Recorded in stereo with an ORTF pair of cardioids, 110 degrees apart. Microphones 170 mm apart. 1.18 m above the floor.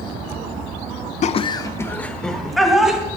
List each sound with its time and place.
1.2 s laughter: 45° left, 0.5 m; by 3.0 s 5° right, 1.7 m